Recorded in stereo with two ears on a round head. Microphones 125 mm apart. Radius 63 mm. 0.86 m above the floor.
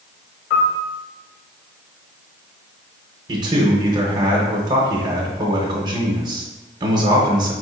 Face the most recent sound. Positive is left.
turn(degrees=-30)  # may be behind; listen again after turning